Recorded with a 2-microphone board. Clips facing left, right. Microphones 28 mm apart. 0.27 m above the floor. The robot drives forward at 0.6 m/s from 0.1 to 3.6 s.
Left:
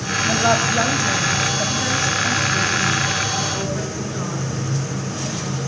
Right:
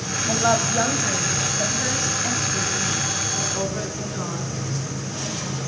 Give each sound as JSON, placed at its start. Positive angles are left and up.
{"t": 0.3, "sound": "a woman speaking", "side_deg": 5, "distance_m": 1.5}